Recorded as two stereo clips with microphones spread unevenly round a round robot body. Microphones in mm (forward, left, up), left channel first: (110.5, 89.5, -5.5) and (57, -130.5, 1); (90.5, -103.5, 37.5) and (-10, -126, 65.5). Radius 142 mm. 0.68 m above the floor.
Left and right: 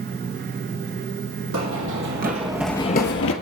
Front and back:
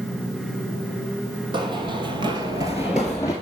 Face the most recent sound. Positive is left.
turn(degrees=95)